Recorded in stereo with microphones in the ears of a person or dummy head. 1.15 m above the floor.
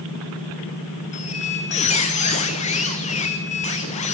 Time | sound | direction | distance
1.1 | a squeak | 40° left (ahead or behind) | 2 m